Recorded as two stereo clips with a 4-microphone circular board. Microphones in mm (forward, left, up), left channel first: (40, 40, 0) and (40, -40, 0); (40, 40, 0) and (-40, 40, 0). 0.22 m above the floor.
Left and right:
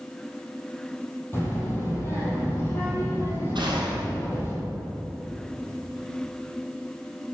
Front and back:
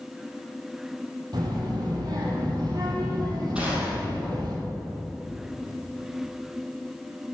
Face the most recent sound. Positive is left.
turn(degrees=-105)